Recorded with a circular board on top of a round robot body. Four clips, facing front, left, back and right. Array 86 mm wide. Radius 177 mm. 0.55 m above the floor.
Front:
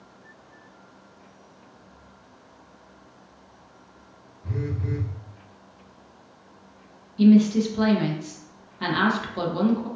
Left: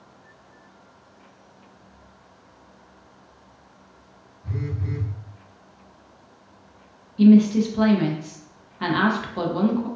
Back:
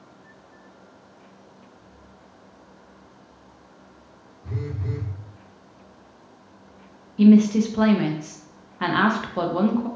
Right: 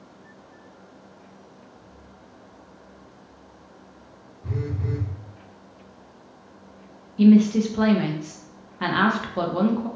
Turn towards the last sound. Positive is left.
turn(degrees=-155)